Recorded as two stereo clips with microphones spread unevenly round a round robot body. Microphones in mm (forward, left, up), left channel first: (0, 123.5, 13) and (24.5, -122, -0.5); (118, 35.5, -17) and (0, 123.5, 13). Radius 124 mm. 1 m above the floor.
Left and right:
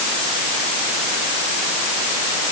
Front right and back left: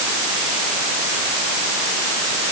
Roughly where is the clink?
I don't hear a clink.